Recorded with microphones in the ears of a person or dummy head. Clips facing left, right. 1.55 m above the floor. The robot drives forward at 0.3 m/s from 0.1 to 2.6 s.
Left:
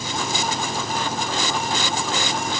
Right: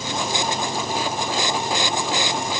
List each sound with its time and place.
Only background noise.